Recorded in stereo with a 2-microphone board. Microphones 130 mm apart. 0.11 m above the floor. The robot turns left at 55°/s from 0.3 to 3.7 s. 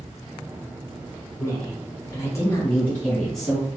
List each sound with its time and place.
1.4 s a woman speaking: 25° left (ahead or behind), 1.1 m; by 3.7 s 5° right (ahead or behind), 1.1 m